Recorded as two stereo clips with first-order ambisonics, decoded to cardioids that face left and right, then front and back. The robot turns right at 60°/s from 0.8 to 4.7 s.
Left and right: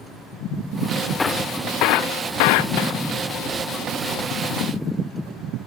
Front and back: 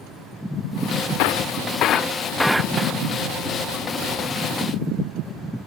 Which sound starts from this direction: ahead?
Breaking glass, at 1.2 s.